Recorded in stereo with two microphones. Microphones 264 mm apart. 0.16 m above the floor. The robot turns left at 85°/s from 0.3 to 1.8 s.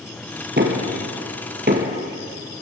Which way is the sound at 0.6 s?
40° right (ahead or behind).